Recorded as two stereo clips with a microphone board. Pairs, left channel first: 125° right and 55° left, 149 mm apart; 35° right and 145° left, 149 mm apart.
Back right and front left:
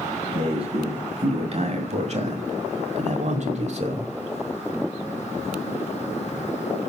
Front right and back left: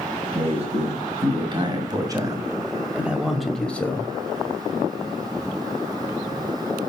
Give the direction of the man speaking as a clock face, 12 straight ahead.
9 o'clock.